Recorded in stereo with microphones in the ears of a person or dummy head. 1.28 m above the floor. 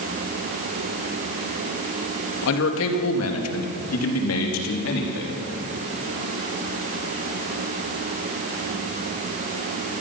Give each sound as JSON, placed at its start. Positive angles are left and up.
{"t": 2.4, "sound": "a man speaking", "side_deg": 70, "distance_m": 2.0}